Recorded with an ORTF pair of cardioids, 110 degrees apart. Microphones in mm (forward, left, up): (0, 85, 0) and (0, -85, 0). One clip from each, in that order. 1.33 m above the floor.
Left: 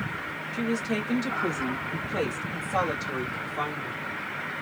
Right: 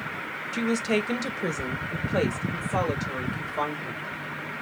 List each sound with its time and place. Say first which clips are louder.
0.5 s a woman speaking: right 4 dB; 60° right, 0.9 m; by 4.0 s 15° right, 2.5 m